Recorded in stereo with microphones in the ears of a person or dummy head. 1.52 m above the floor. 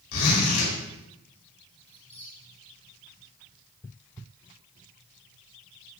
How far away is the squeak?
About 0.9 m.